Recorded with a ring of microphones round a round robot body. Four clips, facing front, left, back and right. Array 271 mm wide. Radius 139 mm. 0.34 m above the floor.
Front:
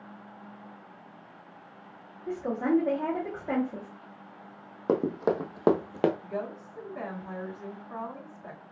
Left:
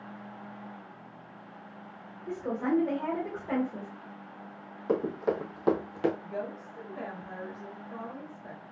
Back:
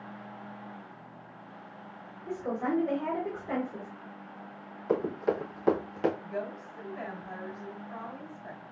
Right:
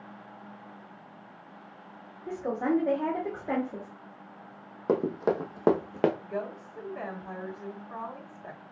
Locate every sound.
2.3 s a woman speaking: 40° right, 2 m
4.9 s running footsteps: 30° right, 1.2 m; by 6.1 s 50° right, 0.6 m
6.2 s a woman speaking: 45° right, 2.5 m